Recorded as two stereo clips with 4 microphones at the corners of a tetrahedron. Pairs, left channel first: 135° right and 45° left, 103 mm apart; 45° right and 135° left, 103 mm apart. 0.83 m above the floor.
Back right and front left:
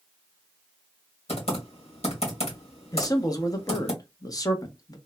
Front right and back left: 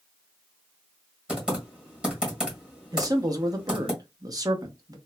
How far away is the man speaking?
About 0.7 m.